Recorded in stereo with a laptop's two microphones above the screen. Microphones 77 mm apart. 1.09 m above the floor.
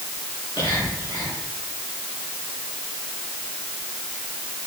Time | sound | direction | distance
0.6 | whispering | 85° left | 4.5 m